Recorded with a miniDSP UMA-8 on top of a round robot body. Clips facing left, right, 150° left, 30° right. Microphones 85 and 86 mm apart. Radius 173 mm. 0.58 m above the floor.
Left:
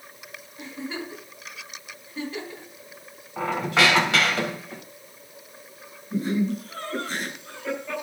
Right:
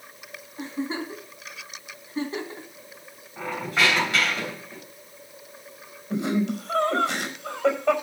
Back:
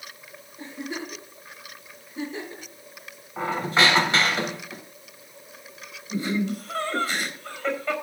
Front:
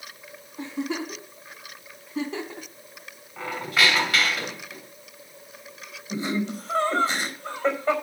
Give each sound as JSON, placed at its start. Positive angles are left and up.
{"t": 0.6, "sound": "a giggle", "azimuth_deg": -30, "distance_m": 3.5}
{"t": 3.4, "sound": "a squeak", "azimuth_deg": 85, "distance_m": 3.0}
{"t": 6.1, "sound": "laughter", "azimuth_deg": -95, "distance_m": 4.5}